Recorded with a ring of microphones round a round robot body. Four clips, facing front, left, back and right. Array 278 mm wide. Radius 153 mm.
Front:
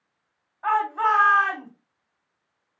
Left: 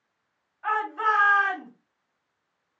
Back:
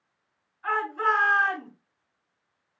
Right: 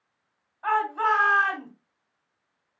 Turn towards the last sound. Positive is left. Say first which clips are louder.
# right 2 dB, front 4 dB
turn(degrees=-20)